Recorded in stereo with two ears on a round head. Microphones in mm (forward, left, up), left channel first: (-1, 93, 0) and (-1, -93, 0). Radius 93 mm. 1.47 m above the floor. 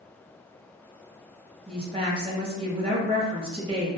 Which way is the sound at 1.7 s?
25° right (ahead or behind).